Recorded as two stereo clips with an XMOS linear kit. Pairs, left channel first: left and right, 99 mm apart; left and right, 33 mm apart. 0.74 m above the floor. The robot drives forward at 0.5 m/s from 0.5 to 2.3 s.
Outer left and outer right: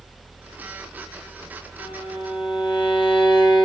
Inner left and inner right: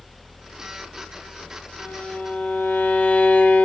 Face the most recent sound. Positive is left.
turn(degrees=65)  # may be behind; listen again after turning